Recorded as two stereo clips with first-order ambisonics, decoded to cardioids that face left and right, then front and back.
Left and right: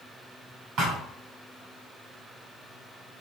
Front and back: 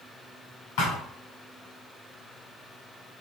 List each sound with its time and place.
0.8 s a thud: 30° right, 4 m